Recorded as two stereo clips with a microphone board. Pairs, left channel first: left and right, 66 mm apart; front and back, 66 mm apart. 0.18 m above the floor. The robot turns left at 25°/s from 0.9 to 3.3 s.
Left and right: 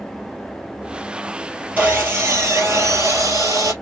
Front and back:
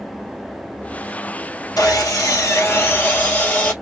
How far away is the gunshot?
No gunshot in this recording.